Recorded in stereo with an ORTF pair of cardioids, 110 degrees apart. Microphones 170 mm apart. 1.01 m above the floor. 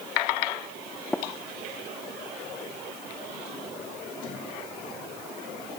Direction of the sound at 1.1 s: 5° left.